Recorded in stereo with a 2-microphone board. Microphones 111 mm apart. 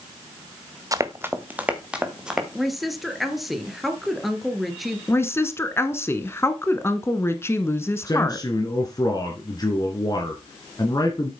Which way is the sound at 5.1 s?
20° left (ahead or behind).